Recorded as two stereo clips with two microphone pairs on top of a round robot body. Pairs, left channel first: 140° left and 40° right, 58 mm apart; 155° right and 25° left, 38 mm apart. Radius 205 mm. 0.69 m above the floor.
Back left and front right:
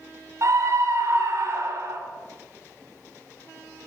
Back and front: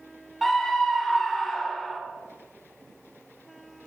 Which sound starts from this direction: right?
A scream, at 0.4 s.